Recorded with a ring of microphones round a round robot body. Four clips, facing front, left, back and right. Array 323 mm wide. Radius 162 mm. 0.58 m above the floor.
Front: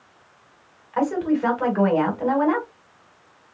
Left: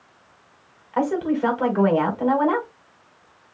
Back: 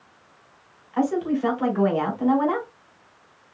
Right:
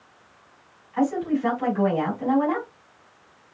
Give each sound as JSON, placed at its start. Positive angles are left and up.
{"t": 0.9, "sound": "a woman speaking", "azimuth_deg": 70, "distance_m": 4.0}